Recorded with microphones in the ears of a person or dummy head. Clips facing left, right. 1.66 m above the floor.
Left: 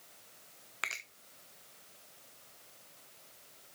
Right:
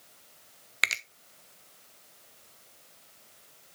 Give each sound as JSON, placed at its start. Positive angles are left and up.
{"t": 0.8, "sound": "a finger snap", "side_deg": -20, "distance_m": 0.5}